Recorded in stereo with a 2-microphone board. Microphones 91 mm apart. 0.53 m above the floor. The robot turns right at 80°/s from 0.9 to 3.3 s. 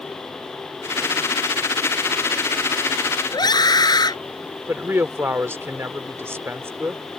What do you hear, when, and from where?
3.3 s a scream: 45° left (ahead or behind)
4.7 s a woman speaking: 30° right (ahead or behind)